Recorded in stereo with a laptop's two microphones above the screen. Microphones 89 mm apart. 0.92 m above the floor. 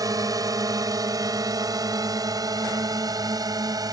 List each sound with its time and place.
0.0 s a drone: 45° right (ahead or behind)